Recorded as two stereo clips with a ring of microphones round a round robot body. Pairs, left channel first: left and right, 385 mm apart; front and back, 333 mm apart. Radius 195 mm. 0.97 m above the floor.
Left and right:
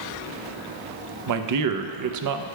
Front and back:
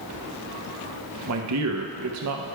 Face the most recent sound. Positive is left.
turn(degrees=-135)